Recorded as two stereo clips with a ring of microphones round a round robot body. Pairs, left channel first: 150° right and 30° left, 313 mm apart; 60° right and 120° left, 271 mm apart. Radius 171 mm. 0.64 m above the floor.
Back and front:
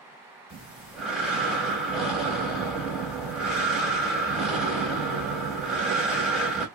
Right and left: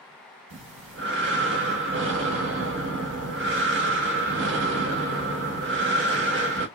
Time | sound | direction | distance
0.5 | breathing | 120° left | 1.1 m